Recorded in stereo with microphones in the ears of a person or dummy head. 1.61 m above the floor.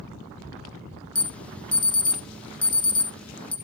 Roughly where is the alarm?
Centre.